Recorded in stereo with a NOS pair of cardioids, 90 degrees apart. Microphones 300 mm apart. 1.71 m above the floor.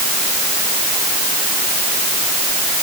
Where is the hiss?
No hiss in this recording.